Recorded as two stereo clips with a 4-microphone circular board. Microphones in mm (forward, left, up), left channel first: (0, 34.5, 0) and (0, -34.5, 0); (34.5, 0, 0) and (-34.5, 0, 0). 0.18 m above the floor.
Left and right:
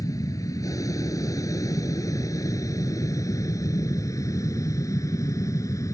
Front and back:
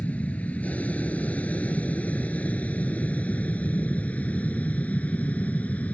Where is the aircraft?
65° left.